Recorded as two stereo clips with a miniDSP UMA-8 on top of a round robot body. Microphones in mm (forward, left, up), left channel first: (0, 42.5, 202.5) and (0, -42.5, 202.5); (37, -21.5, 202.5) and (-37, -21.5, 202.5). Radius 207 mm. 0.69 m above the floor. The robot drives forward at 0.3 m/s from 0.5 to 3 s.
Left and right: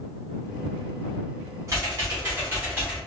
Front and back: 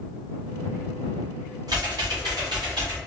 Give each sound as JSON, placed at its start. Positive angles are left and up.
{"t": 1.7, "sound": "typing on a keyboard", "azimuth_deg": -145, "distance_m": 0.6}